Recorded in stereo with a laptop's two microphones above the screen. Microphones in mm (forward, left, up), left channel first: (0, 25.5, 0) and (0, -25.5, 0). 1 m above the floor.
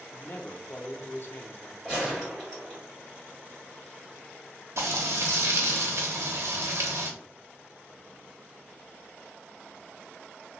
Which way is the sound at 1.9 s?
5° left (ahead or behind).